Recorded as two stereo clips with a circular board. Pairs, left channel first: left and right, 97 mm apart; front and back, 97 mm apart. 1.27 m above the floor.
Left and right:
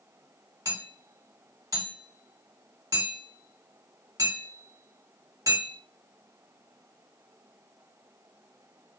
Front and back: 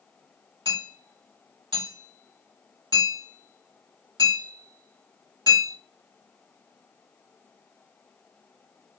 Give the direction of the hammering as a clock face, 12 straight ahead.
5 o'clock.